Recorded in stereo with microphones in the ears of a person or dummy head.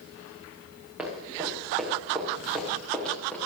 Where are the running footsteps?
10° right (ahead or behind), 6 m; by 3.4 s 5° left (ahead or behind), 6 m.